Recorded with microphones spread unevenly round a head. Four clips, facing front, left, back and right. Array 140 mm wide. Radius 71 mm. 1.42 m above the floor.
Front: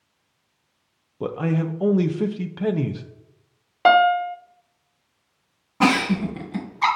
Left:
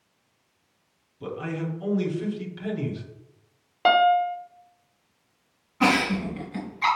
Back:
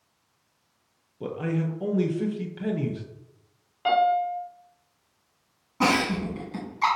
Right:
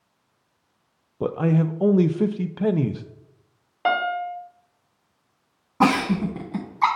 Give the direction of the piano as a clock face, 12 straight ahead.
11 o'clock.